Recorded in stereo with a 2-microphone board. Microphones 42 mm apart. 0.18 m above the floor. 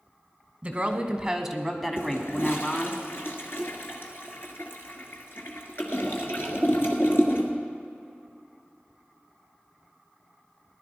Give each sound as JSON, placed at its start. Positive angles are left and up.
{"t": 0.6, "sound": "a woman speaking", "side_deg": -30, "distance_m": 1.2}
{"t": 2.0, "sound": "a toilet flushing", "side_deg": 65, "distance_m": 1.6}